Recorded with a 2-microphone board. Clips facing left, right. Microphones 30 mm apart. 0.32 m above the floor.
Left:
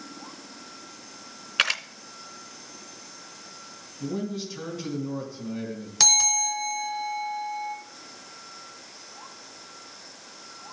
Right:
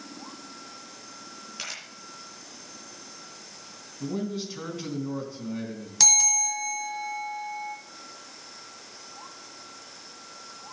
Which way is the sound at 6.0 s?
15° left (ahead or behind).